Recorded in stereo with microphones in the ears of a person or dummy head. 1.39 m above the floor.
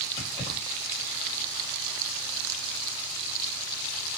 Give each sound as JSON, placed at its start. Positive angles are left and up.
{"t": 0.2, "sound": "keys jangling", "side_deg": 30, "distance_m": 2.0}